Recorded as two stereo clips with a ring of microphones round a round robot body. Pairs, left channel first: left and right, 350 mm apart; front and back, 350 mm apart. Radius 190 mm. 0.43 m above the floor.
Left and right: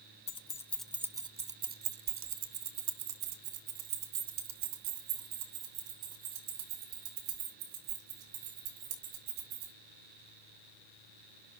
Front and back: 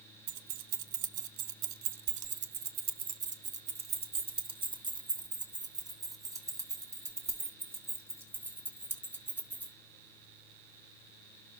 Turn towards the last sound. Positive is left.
turn(degrees=-95)